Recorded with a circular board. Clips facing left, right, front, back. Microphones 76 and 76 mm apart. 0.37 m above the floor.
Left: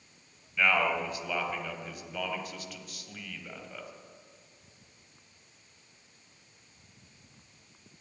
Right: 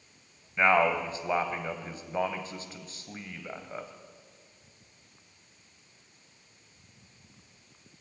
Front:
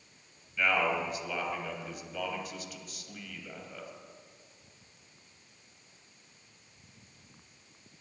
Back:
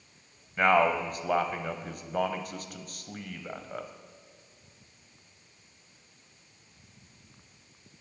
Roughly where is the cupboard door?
I don't hear a cupboard door.